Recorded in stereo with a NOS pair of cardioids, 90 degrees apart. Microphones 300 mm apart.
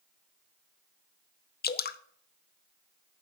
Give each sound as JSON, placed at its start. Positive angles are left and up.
{"t": 1.6, "sound": "dripping", "azimuth_deg": 35, "distance_m": 0.6}